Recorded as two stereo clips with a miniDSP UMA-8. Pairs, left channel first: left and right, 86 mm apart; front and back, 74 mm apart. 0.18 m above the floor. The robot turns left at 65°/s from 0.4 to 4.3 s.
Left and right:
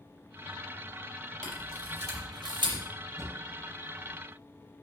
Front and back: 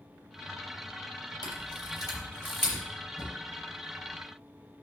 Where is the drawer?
35° right, 3 m; by 3.4 s 45° right, 3 m.